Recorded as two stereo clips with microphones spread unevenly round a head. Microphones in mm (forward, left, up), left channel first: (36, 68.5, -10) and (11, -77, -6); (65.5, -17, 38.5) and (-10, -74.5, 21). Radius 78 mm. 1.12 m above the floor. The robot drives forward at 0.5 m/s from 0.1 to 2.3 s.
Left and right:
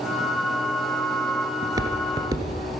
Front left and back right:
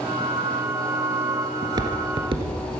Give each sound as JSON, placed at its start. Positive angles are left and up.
{"t": 1.6, "sound": "footsteps", "azimuth_deg": -125, "distance_m": 1.2}